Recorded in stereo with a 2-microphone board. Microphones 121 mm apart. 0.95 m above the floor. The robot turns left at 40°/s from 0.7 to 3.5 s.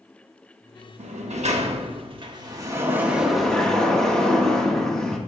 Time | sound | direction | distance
1.0 | a sliding door | 85° right | 1.1 m